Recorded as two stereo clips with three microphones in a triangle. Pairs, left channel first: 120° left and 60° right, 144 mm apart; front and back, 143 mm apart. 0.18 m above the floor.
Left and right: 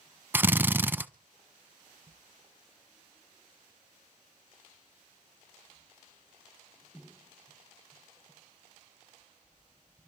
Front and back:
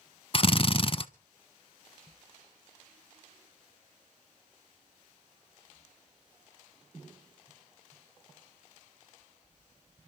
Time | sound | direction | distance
0.3 | a drill | 10° left | 0.6 m